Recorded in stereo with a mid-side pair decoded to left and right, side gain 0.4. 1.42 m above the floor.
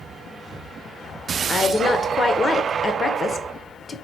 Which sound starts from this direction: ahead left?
A woman speaking, at 1.5 s.